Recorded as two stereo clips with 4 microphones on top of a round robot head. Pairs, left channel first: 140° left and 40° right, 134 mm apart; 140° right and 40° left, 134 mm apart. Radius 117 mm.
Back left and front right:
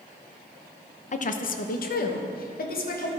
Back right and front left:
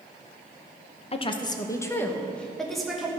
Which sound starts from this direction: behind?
A woman speaking, at 1.1 s.